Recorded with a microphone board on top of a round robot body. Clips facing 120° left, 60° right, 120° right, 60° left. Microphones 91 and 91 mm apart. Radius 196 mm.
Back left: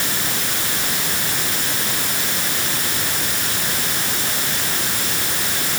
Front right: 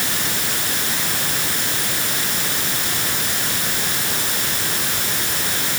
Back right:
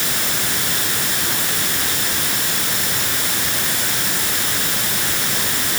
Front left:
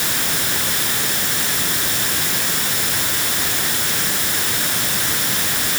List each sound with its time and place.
Only background noise.